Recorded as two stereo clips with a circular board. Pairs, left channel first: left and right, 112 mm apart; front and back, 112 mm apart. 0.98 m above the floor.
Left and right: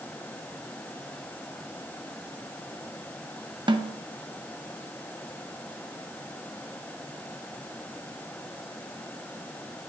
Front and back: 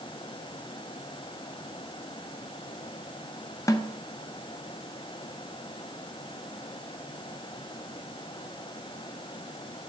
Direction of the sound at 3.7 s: 55° right.